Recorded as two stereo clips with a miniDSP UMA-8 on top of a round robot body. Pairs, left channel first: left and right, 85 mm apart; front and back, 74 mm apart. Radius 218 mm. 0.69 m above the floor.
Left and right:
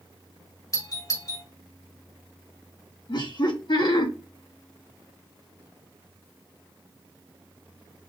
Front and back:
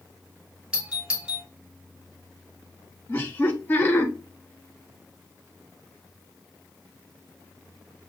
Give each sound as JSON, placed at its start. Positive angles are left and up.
{"t": 0.7, "sound": "a doorbell", "azimuth_deg": 110, "distance_m": 1.6}
{"t": 3.1, "sound": "laughter", "azimuth_deg": 65, "distance_m": 1.7}